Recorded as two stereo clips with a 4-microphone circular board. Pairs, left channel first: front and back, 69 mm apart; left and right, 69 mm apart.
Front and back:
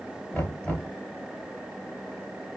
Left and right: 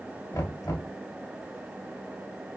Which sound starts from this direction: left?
Knocking, at 0.3 s.